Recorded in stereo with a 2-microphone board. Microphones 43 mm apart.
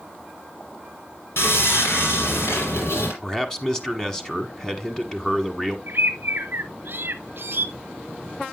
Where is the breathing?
I don't hear breathing.